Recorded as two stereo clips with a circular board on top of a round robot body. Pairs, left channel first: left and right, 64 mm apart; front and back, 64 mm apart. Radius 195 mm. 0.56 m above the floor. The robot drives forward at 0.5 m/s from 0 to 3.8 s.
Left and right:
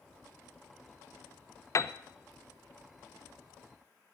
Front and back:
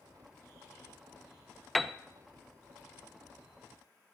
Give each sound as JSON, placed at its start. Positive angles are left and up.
{"t": 1.8, "sound": "a piano", "azimuth_deg": 85, "distance_m": 0.5}